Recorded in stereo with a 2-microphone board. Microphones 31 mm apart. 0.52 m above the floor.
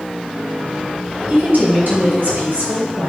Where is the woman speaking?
65° right (ahead or behind), 3.5 m.